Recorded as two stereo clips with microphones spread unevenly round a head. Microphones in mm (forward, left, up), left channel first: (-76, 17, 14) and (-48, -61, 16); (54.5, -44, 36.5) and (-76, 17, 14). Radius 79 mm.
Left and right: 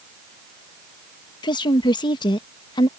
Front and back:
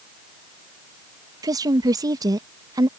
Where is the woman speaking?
100° left.